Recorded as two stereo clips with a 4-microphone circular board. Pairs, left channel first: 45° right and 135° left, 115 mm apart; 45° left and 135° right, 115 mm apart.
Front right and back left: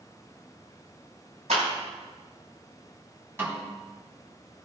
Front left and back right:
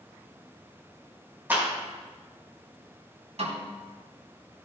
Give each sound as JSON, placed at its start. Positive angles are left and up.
{"t": 1.5, "sound": "a clap", "azimuth_deg": 150, "distance_m": 5.0}
{"t": 3.4, "sound": "a snare drum", "azimuth_deg": -155, "distance_m": 5.0}